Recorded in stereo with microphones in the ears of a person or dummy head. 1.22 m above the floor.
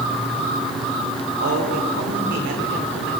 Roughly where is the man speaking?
Right.